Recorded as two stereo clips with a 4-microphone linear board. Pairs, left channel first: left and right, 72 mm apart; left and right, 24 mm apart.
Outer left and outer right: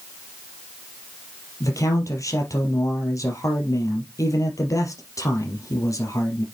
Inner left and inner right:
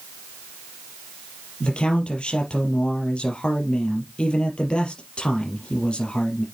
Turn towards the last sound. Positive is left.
turn(degrees=50)  # may be behind; listen again after turning